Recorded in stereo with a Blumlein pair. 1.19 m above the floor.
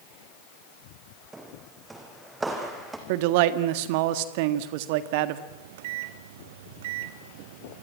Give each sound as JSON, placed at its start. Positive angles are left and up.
{"t": 1.3, "sound": "footsteps", "azimuth_deg": -10, "distance_m": 4.0}
{"t": 3.1, "sound": "a man speaking", "azimuth_deg": -45, "distance_m": 1.7}
{"t": 5.5, "sound": "a microwave", "azimuth_deg": -55, "distance_m": 0.9}